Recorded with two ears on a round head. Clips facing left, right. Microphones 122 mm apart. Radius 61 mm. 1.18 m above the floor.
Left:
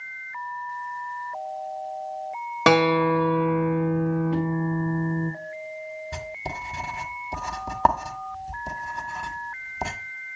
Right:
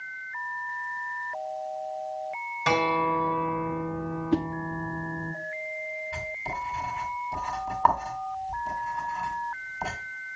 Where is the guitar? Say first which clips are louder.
Left 6 dB; 75° left (ahead or behind), 1.5 m.